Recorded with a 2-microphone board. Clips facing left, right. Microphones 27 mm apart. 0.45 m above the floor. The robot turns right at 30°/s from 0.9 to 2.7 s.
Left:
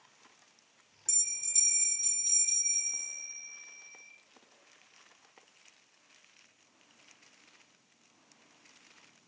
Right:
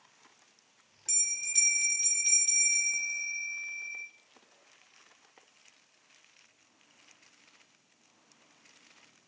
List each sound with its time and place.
1.1 s a bell: 155° right, 0.6 m; by 4.1 s 105° right, 0.6 m